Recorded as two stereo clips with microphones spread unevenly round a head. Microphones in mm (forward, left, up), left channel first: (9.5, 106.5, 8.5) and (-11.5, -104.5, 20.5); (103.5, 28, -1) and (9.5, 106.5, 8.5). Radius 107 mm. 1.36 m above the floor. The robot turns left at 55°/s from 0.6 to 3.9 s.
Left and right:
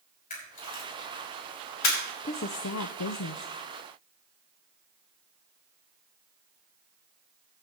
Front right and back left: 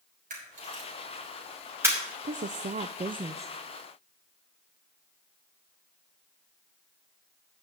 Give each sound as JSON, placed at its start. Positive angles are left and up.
{"t": 0.3, "sound": "a camera shutter", "azimuth_deg": 140, "distance_m": 6.0}
{"t": 2.2, "sound": "a woman speaking", "azimuth_deg": 135, "distance_m": 0.5}